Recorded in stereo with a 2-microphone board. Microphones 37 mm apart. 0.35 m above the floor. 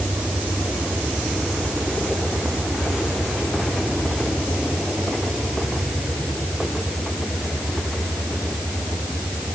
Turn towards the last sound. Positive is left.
No sound to turn to.